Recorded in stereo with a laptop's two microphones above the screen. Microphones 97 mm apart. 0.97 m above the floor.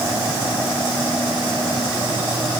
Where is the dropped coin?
No dropped coin in this recording.